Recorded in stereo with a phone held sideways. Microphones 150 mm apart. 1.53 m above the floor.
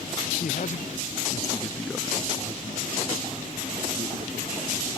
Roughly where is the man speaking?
Left.